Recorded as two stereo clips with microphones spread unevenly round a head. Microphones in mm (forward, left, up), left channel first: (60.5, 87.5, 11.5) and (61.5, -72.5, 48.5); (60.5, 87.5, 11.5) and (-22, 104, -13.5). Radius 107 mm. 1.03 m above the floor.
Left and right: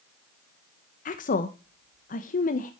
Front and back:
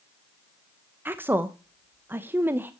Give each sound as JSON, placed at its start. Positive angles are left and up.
{"t": 1.1, "sound": "a woman speaking", "azimuth_deg": 110, "distance_m": 0.7}